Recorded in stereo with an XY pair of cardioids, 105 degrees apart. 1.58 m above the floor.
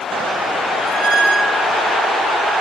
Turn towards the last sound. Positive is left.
turn(degrees=-65)